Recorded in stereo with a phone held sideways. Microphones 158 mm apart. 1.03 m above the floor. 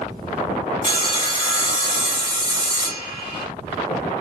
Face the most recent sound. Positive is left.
turn(degrees=80)